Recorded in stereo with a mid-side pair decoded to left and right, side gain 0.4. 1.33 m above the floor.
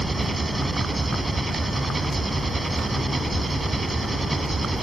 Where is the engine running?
20° right.